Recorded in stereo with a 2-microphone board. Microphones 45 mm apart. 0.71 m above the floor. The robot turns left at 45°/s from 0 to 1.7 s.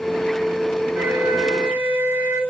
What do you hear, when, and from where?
0.9 s a flute: 60° right, 1.0 m; by 2.4 s 90° right, 1.0 m